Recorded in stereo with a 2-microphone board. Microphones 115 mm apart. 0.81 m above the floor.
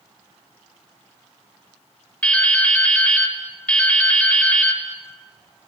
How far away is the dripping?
About 1.6 m.